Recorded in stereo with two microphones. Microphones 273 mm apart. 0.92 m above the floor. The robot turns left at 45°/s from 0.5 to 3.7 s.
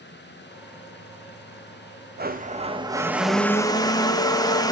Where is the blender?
130° right, 1.0 m; by 4.7 s 160° left, 1.0 m.